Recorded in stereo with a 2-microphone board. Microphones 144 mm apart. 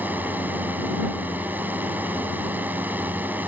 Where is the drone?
10° right (ahead or behind).